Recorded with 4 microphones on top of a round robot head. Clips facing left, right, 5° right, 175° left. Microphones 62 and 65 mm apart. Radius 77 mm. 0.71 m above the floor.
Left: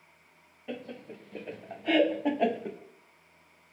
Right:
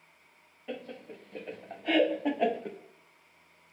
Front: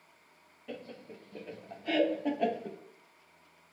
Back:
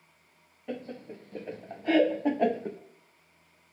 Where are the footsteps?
No footsteps in this recording.